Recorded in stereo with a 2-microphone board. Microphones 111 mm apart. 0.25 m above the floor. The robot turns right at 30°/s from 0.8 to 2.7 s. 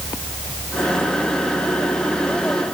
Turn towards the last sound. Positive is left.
No sound to turn to.